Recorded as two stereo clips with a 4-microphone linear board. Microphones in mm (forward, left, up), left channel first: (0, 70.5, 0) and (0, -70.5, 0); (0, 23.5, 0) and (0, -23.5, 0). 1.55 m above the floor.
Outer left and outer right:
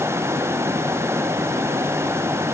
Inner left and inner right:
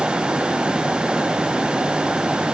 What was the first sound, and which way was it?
Only background noise.